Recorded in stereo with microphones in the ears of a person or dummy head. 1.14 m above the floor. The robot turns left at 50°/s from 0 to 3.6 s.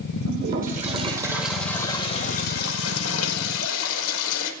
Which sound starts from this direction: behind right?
A toilet flushing, at 0.2 s.